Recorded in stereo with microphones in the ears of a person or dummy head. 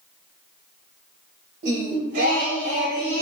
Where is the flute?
I don't hear a flute.